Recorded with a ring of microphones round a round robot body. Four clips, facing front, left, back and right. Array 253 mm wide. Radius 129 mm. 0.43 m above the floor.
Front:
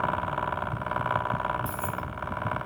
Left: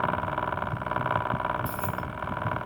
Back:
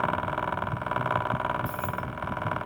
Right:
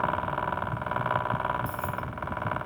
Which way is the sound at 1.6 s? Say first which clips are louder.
Left 1 dB, back 1 dB; 50° left.